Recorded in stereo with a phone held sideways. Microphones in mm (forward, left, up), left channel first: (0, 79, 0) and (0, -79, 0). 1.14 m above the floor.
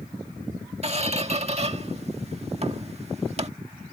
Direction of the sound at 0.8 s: 40° right (ahead or behind).